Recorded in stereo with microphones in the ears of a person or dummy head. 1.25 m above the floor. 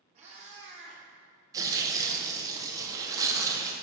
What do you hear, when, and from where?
0.1 s a cat meowing: 35° right (ahead or behind), 1.9 m
1.5 s tearing paper: 20° right (ahead or behind), 0.9 m